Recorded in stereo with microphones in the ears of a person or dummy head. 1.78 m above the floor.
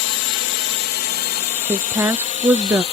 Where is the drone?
65° left (ahead or behind); by 2.9 s 35° left (ahead or behind).